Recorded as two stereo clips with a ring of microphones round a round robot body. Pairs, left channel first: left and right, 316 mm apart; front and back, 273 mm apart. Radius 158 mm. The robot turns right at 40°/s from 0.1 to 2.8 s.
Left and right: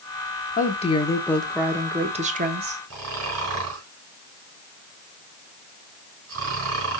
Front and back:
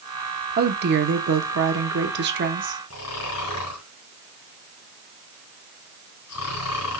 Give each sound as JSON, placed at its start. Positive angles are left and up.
{"t": 0.6, "sound": "a woman speaking", "azimuth_deg": 145, "distance_m": 1.1}
{"t": 2.9, "sound": "snoring", "azimuth_deg": -45, "distance_m": 4.0}